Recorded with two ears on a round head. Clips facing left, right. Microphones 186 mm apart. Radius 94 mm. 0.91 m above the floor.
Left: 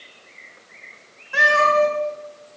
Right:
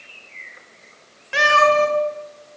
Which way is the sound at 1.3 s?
70° right (ahead or behind).